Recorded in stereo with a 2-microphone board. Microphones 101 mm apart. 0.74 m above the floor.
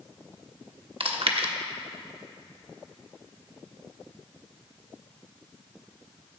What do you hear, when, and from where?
1.0 s chewing: 65° right (ahead or behind), 1.1 m